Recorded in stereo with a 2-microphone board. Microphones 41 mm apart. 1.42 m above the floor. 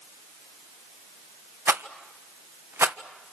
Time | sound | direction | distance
1.7 | a rattle | 75° right (ahead or behind) | 1.3 m